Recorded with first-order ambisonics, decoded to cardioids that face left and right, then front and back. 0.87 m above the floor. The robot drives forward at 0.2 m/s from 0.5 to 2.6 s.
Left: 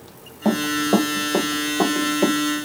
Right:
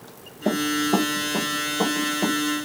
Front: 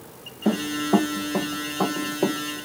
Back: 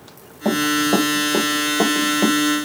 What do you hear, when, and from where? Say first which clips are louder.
0.5 s running footsteps: left 2 dB, back 6 dB; 135° left, 1.5 m; by 2.7 s straight behind, 1.0 m